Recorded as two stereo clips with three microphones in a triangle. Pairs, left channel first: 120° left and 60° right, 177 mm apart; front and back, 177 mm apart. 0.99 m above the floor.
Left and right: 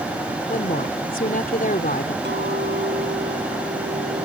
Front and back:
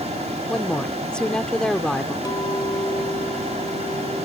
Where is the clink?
70° right.